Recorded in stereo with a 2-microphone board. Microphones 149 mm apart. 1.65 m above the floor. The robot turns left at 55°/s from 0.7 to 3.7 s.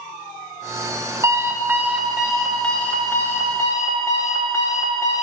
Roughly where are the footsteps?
I don't hear footsteps.